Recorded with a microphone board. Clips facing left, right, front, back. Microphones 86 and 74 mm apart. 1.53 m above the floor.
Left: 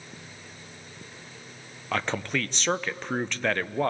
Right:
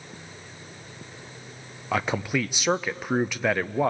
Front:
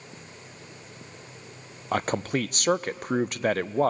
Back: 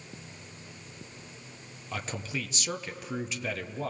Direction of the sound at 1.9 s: 10° right.